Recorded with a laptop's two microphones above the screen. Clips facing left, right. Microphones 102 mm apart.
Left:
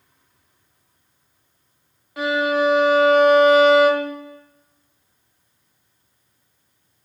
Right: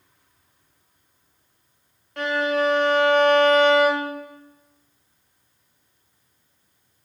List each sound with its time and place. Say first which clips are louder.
2.2 s a violin: left 3 dB; 5° left (ahead or behind), 0.6 m